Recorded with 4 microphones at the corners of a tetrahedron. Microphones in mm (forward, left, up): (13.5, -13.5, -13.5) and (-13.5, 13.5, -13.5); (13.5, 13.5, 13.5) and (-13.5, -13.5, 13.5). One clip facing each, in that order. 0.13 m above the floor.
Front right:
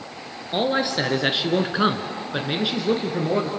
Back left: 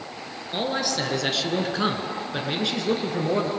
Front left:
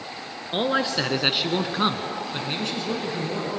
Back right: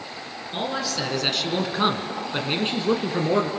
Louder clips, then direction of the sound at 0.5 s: Front right 4 dB, front left 4 dB; 10° left.